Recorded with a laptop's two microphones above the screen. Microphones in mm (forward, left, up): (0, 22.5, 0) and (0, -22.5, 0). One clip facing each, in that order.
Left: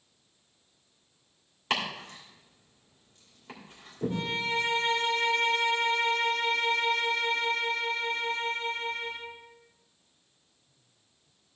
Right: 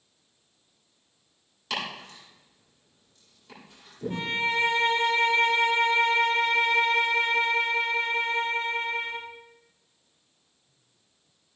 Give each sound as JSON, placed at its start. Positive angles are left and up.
{"t": 1.7, "sound": "chopping", "side_deg": 35, "distance_m": 2.5}
{"t": 4.1, "sound": "a violin", "side_deg": -45, "distance_m": 3.5}